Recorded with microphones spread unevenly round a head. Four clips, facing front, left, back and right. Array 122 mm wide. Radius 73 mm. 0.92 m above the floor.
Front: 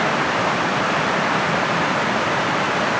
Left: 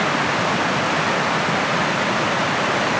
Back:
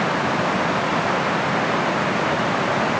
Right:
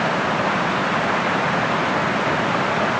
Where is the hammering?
I don't hear hammering.